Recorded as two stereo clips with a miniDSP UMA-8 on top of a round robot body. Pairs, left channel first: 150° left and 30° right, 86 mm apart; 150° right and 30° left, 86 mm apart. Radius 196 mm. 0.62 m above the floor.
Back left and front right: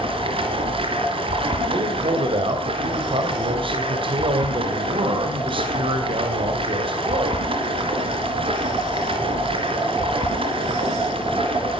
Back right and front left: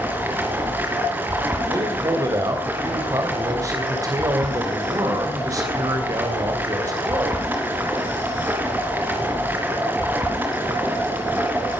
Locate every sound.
0.0 s running water: 40° right, 3 m
1.7 s a man speaking: 15° right, 3 m